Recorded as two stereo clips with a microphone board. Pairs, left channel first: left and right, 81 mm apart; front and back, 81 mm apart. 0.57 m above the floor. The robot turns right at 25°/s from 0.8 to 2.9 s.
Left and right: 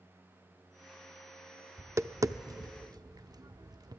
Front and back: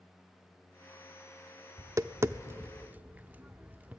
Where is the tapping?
140° right, 0.6 m; by 4.0 s 115° right, 0.6 m.